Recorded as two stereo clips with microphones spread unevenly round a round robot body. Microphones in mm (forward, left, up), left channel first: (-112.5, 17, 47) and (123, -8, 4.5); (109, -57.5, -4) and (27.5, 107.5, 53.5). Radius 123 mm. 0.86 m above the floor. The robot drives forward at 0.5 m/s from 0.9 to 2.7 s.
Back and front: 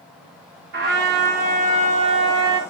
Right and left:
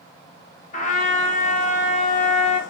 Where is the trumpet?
35° right, 1.7 m; by 2.6 s 70° right, 1.2 m.